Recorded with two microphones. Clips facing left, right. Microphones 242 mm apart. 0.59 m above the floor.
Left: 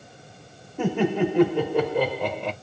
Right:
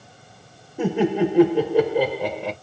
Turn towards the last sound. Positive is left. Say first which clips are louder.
# right 2 dB
turn(degrees=-10)  # may be behind; listen again after turning